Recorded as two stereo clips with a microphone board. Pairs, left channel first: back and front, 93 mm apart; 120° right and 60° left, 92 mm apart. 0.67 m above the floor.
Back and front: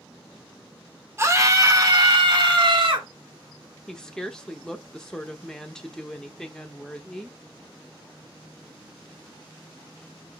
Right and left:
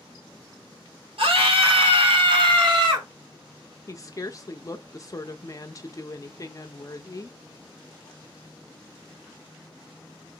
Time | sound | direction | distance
1.2 | a scream | 60° left | 1.4 m
3.9 | a woman speaking | 100° right | 0.6 m